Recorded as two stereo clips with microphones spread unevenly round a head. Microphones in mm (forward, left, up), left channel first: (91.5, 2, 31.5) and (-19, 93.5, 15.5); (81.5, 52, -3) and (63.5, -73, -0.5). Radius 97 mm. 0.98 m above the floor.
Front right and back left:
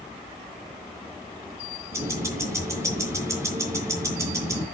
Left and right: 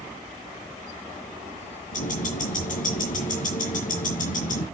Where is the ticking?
70° left, 4.5 m.